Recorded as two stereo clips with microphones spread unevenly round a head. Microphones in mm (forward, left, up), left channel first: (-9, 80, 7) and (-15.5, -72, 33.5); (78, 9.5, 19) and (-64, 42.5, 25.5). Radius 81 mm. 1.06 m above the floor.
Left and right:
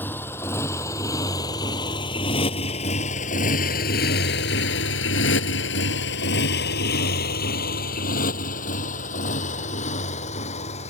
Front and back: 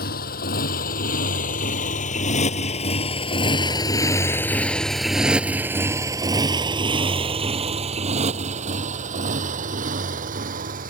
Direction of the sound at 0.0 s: 10° left.